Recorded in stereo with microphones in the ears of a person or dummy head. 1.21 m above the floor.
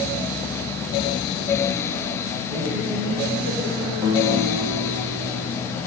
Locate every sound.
2.5 s a woman speaking: 70° right (ahead or behind), 8.5 m
4.0 s a guitar: 15° right (ahead or behind), 5 m